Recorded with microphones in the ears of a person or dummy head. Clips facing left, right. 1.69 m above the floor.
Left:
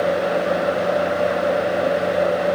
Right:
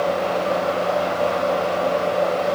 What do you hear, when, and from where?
Only background noise.